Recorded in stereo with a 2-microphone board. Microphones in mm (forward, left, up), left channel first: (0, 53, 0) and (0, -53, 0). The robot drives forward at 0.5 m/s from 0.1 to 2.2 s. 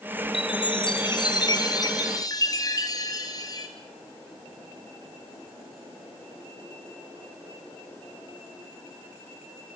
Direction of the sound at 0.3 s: 50° left (ahead or behind).